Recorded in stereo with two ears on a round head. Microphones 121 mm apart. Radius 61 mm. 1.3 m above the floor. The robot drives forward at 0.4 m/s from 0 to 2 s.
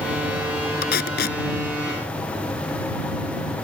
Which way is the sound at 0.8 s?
80° left.